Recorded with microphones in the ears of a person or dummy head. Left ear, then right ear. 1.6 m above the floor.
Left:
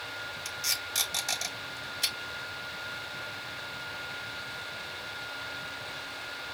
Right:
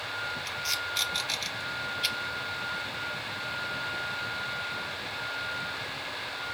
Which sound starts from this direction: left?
Tape being pulled, at 0.5 s.